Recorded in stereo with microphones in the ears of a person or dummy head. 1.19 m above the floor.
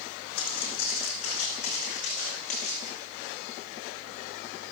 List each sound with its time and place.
0.4 s footsteps: 35° left (ahead or behind), 4 m; by 2.9 s 45° left (ahead or behind), 5 m